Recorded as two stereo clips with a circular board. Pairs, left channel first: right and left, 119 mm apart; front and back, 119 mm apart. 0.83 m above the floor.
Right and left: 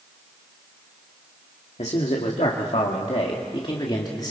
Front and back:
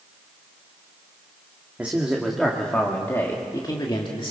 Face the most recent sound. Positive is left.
turn(degrees=-35)